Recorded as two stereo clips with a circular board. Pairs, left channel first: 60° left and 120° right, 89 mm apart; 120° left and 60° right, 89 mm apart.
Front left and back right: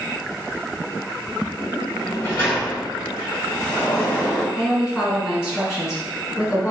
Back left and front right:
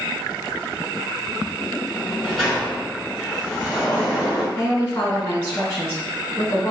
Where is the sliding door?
35° left, 1.6 m.